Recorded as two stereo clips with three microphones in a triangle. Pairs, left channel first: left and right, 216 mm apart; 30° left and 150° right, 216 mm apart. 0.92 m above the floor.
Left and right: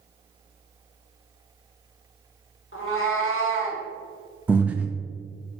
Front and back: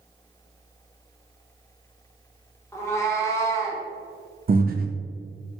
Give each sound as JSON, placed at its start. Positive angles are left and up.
{"t": 2.7, "sound": "a cat meowing", "azimuth_deg": 105, "distance_m": 0.8}
{"t": 4.5, "sound": "breathing", "azimuth_deg": -175, "distance_m": 0.5}